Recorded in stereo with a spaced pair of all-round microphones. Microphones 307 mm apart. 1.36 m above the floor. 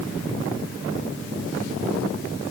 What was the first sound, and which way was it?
Only background noise.